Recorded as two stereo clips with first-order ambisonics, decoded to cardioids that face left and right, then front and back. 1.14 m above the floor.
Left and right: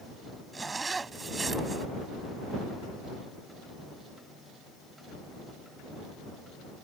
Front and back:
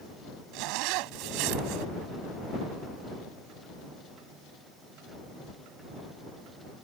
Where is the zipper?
165° right.